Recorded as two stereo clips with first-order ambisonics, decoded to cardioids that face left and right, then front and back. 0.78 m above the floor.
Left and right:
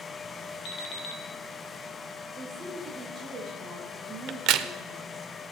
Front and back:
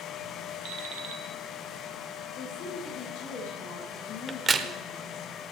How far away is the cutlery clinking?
I don't hear cutlery clinking.